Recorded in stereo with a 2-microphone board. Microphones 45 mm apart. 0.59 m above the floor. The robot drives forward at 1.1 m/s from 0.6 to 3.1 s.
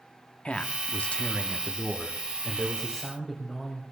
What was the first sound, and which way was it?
A man speaking, 25° left (ahead or behind).